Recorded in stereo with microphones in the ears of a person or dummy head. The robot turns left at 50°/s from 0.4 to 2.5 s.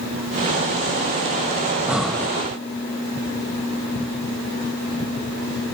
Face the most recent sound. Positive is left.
turn(degrees=165)